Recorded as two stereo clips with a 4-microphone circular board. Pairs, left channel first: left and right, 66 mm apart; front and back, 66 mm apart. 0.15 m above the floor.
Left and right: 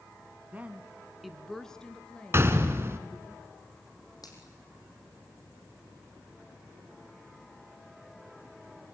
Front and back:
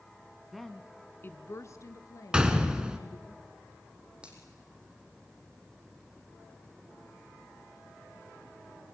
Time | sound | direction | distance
0.5 | a woman speaking | 95° right | 1.2 m
2.3 | a gunshot | 110° right | 1.7 m
4.2 | a finger snap | 105° left | 4.5 m